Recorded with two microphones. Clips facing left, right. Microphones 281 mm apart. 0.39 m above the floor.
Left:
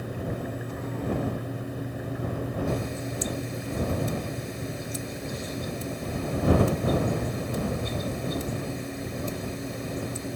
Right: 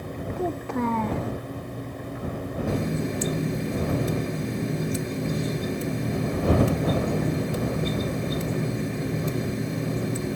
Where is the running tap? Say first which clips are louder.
Right 4 dB; 75° right (ahead or behind).